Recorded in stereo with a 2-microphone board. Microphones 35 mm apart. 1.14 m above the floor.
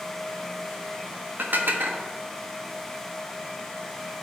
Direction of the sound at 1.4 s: 65° right (ahead or behind).